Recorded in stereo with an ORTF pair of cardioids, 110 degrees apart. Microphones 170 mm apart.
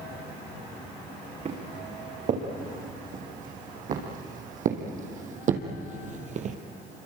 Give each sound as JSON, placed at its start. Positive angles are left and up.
{"t": 1.4, "sound": "footsteps", "azimuth_deg": -50, "distance_m": 7.5}